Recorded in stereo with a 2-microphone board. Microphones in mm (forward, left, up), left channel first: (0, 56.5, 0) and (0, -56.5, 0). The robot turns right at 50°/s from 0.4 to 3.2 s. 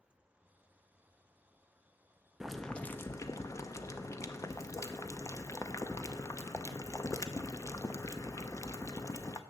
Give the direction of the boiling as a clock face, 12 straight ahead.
12 o'clock.